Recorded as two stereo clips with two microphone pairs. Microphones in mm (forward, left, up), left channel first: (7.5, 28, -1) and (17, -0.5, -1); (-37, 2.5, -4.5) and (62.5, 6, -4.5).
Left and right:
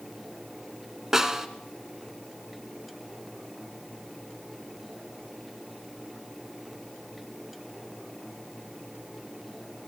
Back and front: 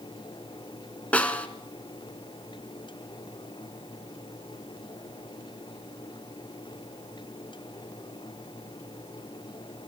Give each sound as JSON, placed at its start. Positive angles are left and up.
{"t": 1.1, "sound": "a snare drum", "azimuth_deg": -125, "distance_m": 1.7}